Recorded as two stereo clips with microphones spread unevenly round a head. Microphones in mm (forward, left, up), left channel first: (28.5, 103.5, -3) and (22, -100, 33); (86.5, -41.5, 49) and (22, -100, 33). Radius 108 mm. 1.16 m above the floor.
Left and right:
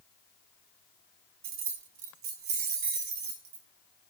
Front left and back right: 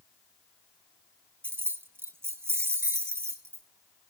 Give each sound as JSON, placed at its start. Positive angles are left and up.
{"t": 1.4, "sound": "keys jangling", "azimuth_deg": -70, "distance_m": 1.7}